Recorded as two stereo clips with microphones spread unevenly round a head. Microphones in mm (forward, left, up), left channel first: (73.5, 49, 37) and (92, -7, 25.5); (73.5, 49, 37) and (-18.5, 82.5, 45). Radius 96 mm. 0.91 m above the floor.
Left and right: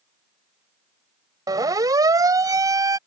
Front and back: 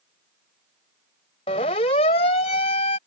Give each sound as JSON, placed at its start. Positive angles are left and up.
{"t": 1.5, "sound": "a siren", "azimuth_deg": -65}